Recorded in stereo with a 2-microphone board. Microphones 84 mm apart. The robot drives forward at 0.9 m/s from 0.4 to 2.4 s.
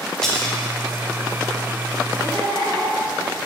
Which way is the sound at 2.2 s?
55° right (ahead or behind).